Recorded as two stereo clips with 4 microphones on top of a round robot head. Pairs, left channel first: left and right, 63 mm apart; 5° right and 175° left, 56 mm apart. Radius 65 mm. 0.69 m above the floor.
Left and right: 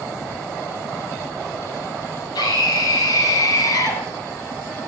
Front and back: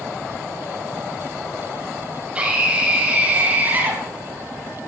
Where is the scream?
105° left, 5 m; by 4.0 s 120° left, 4.5 m.